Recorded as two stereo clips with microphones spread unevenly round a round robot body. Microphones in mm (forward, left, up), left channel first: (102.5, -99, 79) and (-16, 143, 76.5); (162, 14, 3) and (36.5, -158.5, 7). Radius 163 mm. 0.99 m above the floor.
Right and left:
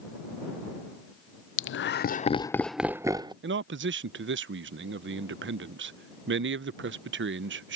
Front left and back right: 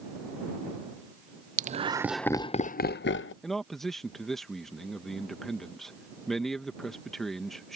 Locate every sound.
1.6 s laughter: 85° right; by 3.3 s 45° left
3.4 s a man speaking: 140° left